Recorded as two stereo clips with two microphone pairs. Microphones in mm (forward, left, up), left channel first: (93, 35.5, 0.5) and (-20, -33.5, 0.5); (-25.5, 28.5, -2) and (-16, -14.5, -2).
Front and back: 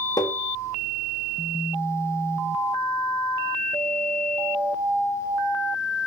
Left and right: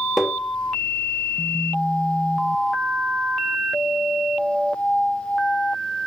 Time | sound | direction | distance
0.2 | tapping | straight ahead | 0.9 m